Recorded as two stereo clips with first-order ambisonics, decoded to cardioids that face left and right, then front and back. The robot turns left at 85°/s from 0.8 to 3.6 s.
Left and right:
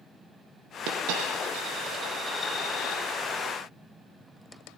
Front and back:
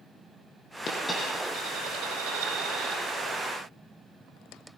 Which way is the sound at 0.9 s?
55° right.